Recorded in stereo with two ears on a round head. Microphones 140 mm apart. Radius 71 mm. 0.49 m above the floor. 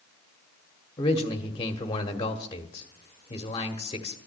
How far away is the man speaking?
About 1.3 m.